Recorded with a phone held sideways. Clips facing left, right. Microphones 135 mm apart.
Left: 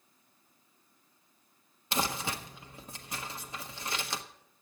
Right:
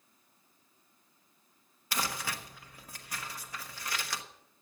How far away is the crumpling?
About 1.0 m.